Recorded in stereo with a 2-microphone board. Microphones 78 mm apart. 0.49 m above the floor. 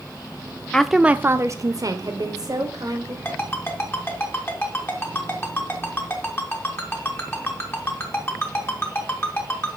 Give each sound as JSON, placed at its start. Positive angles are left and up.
{"t": 0.7, "sound": "a woman speaking", "side_deg": 10, "distance_m": 0.7}
{"t": 3.2, "sound": "a ringtone", "side_deg": 30, "distance_m": 3.5}